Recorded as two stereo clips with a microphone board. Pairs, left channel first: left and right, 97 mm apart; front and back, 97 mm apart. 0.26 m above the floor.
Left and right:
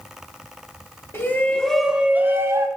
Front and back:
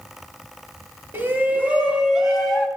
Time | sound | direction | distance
1.1 | a shout | 125° left | 1.3 m